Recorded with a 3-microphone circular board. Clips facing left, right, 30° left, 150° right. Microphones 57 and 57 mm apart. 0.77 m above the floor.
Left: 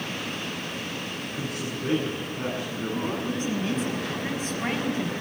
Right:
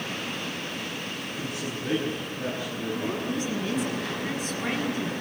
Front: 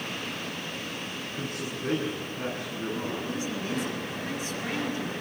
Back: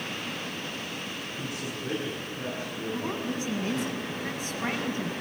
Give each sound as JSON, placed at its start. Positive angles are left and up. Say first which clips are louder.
{"t": 1.3, "sound": "a man speaking", "louder": "left 2 dB, front 2 dB", "azimuth_deg": 65, "distance_m": 8.5}
{"t": 2.9, "sound": "a woman speaking", "louder": "even, back 2 dB", "azimuth_deg": 145, "distance_m": 6.0}